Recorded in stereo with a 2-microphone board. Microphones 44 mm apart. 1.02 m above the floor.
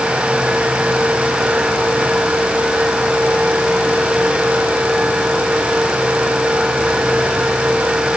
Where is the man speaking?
I don't hear a man speaking.